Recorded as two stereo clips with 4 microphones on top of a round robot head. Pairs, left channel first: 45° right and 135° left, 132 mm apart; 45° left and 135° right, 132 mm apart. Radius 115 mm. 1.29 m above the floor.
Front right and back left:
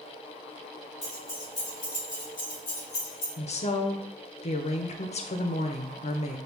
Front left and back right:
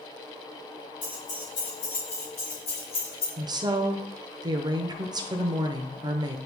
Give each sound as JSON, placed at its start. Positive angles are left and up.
{"t": 1.0, "sound": "keys jangling", "azimuth_deg": 25, "distance_m": 2.5}
{"t": 3.4, "sound": "a woman speaking", "azimuth_deg": -80, "distance_m": 0.6}